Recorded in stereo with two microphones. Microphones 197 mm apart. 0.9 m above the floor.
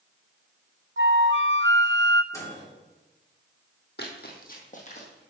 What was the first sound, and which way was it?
A flute, 75° right (ahead or behind).